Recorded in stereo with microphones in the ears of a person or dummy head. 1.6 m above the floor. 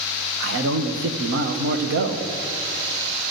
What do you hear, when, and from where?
0.4 s a man speaking: 55° right (ahead or behind), 0.9 m